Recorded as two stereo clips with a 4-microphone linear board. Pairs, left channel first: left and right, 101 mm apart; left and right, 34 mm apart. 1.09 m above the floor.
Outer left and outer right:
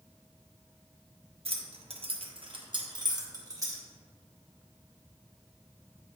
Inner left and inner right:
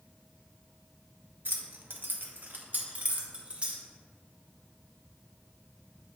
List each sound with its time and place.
1.4 s keys jangling: 75° right (ahead or behind), 0.8 m; by 3.8 s 30° right (ahead or behind), 1.4 m